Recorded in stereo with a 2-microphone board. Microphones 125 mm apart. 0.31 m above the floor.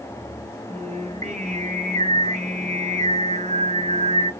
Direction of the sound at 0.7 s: 70° right (ahead or behind).